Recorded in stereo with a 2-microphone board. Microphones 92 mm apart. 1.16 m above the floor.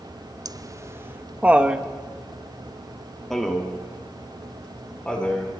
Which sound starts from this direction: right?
Laughter, at 0.5 s.